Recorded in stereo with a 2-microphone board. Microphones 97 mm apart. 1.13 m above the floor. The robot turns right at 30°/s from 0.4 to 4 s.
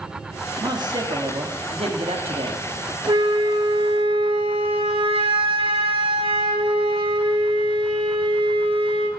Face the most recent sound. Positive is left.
turn(degrees=-70)  # may be behind; listen again after turning